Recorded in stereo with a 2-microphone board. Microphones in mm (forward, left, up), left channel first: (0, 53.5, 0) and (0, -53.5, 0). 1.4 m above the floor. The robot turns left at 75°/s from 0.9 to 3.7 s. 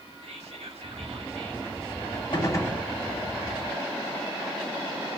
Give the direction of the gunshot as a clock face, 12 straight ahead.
11 o'clock.